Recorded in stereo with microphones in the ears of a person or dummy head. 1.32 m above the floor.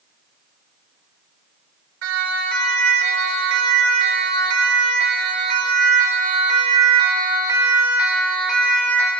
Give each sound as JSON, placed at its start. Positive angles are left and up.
{"t": 2.0, "sound": "a siren", "side_deg": -85, "distance_m": 5.0}